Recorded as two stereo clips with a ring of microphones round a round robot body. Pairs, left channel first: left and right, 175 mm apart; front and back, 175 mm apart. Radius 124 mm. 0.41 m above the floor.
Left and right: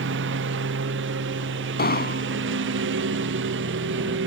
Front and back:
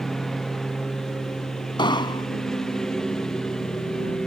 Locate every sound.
0.0 s a lawn mower: 90° right
1.8 s an explosion: 65° left